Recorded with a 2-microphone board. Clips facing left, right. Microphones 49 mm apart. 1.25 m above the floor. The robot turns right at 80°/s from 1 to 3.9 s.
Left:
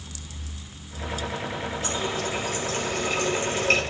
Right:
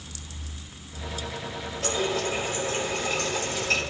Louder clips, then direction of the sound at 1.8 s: Right 4 dB; 95° right.